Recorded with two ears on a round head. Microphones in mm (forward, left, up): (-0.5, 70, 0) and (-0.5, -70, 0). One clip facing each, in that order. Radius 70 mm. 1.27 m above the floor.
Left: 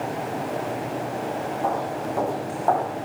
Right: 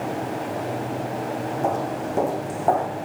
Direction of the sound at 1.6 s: 30° right (ahead or behind).